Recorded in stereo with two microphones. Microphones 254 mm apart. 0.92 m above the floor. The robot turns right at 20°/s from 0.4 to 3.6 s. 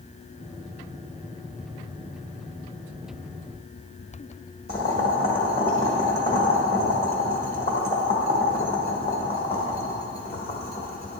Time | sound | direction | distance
4.7 | boiling | 40° left (ahead or behind) | 1.4 m